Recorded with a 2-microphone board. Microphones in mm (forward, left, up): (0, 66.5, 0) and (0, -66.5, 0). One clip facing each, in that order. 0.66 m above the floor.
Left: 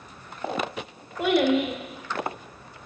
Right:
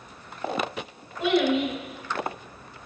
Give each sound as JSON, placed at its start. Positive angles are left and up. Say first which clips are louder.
{"t": 1.2, "sound": "a child speaking", "louder": "left 1 dB", "side_deg": 55, "distance_m": 1.3}